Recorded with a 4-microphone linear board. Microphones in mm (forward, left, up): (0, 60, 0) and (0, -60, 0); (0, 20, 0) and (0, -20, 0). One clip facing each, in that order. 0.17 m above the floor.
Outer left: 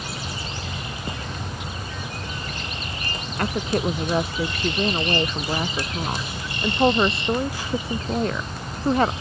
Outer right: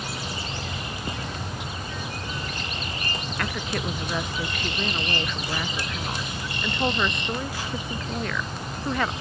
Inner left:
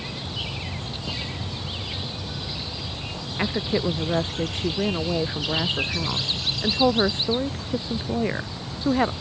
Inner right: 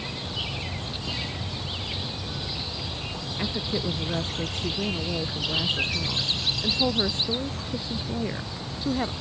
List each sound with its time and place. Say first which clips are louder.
3.4 s a woman speaking: outer left 8 dB, inner left 5 dB; 30° left (ahead or behind)